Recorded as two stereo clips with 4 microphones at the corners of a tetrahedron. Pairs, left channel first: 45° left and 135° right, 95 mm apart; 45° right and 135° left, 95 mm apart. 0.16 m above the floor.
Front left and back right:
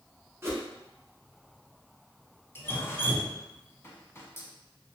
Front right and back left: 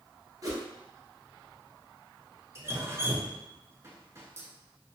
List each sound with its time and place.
0.4 s a whoosh: 170° left, 1.0 m
2.5 s dripping: 95° left, 0.5 m